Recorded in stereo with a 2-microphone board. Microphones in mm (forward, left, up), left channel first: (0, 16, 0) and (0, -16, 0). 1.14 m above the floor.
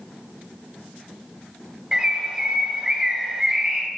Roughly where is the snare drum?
I don't hear a snare drum.